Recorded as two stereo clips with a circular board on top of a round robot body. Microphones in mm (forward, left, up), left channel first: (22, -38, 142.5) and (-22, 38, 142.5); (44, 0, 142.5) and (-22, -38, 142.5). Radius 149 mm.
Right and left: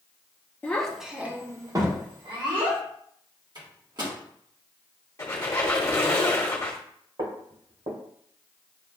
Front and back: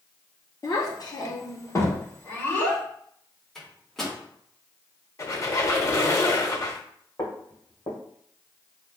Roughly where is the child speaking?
Ahead.